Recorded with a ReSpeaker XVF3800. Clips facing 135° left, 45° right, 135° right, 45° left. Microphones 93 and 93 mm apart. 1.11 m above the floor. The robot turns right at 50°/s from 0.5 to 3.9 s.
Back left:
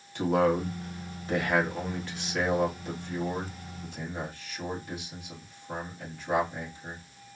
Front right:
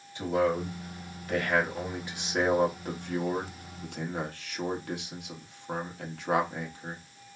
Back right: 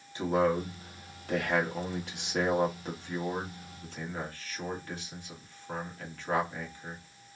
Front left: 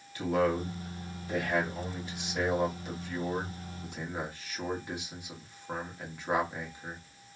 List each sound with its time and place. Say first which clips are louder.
0.1 s a man speaking: back left 2 dB, back right 1 dB; 160° left, 1.3 m; by 7.0 s 30° right, 1.3 m